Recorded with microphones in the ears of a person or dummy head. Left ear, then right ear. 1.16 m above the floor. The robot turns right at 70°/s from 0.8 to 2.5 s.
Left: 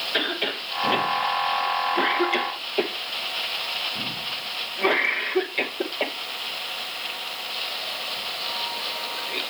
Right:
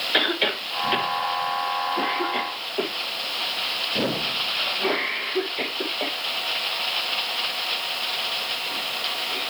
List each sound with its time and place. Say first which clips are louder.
0.1 s a cough: right 5 dB; 20° right (ahead or behind), 1.1 m; by 9.4 s 80° left, 1.1 m